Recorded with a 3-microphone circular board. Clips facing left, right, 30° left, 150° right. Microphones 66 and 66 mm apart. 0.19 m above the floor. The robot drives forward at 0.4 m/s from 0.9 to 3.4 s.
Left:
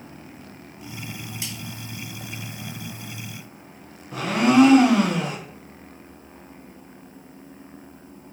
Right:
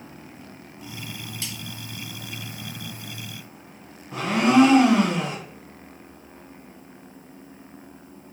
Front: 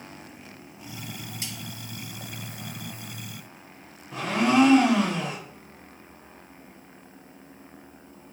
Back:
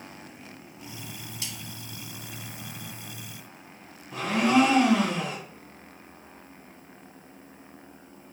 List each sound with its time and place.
1.4 s cutlery clinking: 35° left, 0.6 m; by 1.5 s 40° left, 0.6 m
4.1 s a blender: 75° right, 1.2 m